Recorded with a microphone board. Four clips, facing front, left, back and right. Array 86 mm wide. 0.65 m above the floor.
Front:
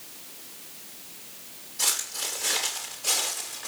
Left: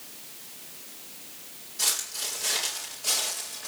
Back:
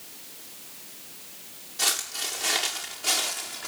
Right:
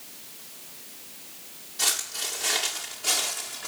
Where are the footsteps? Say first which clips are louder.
Right 4 dB, back 3 dB; 155° right, 9 m.